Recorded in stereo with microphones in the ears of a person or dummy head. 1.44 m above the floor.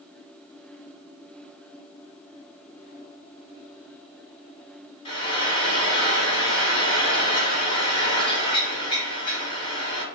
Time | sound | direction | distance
5.0 | frying | 25° left (ahead or behind) | 1.6 m